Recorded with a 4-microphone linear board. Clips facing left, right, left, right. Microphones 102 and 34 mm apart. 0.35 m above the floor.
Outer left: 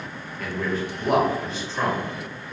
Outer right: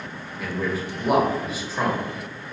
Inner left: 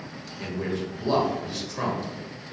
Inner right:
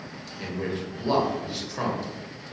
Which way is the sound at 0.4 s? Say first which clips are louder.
Even, inner left 1 dB; 10° right (ahead or behind).